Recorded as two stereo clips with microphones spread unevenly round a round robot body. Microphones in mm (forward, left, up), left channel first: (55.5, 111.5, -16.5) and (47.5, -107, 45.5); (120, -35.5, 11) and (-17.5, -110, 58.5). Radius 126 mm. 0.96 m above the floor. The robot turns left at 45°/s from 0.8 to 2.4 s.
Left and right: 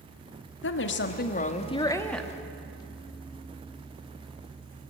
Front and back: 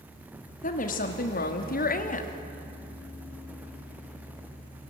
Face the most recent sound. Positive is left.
turn(degrees=-5)